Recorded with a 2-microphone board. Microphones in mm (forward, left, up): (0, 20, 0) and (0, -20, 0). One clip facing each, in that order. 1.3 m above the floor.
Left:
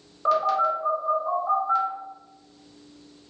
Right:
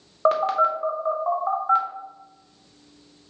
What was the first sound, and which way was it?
A phone buzzing, 40° right (ahead or behind).